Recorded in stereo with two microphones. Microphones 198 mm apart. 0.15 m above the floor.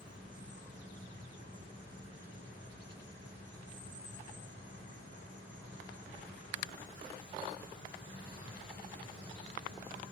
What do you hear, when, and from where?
0.0 s an insect: 75° right (ahead or behind), 9 m